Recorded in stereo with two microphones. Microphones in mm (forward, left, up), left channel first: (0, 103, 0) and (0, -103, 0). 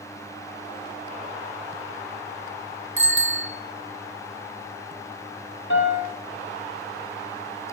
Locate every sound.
3.0 s a bicycle bell: 75° left (ahead or behind), 3 m
5.7 s a piano: 70° left (ahead or behind), 3.5 m